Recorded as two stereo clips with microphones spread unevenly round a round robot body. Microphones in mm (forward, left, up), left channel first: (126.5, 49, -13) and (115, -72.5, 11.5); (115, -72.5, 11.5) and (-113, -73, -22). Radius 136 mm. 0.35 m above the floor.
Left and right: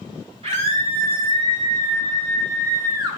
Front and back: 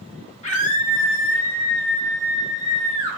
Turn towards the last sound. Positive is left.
turn(degrees=-30)